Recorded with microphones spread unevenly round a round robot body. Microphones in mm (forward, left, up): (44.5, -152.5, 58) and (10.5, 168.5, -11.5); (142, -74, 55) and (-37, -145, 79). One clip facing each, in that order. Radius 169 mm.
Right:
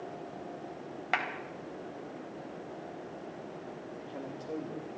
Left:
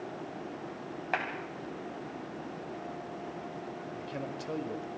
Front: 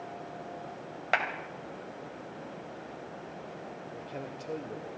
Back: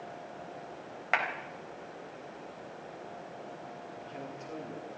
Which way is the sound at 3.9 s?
70° left.